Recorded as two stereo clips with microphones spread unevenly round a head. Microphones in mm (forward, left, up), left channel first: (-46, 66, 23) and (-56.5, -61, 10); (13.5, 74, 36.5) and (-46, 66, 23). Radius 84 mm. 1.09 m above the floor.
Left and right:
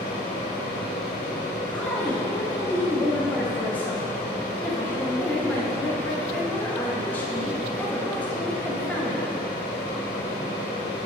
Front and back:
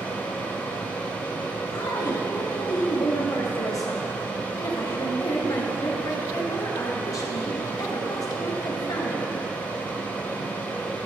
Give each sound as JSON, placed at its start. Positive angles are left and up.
{"t": 0.0, "sound": "a fan", "azimuth_deg": 60, "distance_m": 1.8}
{"t": 1.7, "sound": "a woman speaking", "azimuth_deg": 5, "distance_m": 0.9}